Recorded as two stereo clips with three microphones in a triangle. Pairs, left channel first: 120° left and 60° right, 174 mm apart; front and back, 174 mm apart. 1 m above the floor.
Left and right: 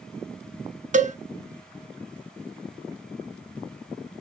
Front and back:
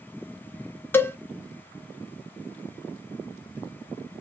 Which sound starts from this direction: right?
A cowbell, at 0.9 s.